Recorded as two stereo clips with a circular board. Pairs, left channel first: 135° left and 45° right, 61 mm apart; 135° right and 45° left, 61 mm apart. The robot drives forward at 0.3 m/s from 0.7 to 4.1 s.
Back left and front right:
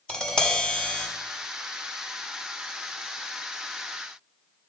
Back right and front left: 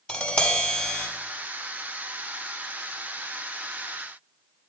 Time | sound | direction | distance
0.1 | tapping | 175° right | 0.9 m